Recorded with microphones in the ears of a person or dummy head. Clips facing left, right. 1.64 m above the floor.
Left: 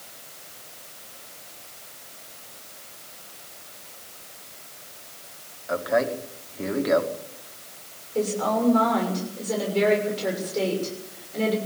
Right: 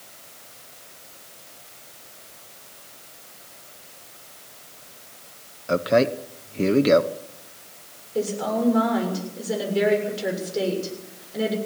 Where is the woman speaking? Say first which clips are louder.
Even; 10° right (ahead or behind), 6.5 m.